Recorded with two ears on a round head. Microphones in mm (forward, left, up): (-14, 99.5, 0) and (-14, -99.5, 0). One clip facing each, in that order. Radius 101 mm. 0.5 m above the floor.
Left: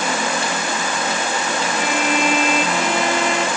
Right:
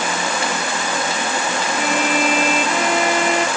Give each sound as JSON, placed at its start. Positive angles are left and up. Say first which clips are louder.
{"t": 1.8, "sound": "a violin", "louder": "right 1 dB", "side_deg": 0, "distance_m": 5.0}